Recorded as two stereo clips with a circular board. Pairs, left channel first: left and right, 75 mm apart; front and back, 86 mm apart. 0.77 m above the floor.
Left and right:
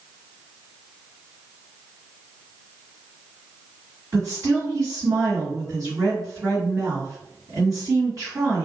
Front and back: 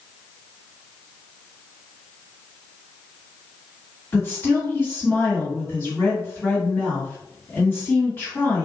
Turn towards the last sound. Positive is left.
turn(degrees=-65)